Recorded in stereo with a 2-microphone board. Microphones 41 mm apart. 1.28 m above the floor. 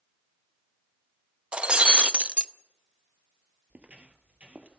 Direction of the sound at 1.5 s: 30° right (ahead or behind).